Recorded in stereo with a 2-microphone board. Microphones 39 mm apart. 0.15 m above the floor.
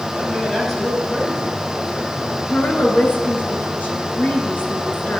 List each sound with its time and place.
0.1 s a man speaking: 10° left (ahead or behind), 4 m
2.5 s a woman speaking: 55° left (ahead or behind), 2 m